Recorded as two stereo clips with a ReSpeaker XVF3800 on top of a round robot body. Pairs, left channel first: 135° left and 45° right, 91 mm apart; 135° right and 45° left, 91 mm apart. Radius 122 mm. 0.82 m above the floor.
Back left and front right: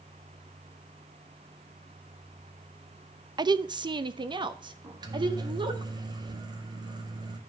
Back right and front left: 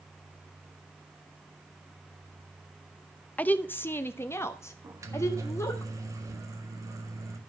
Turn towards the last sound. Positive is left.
turn(degrees=-5)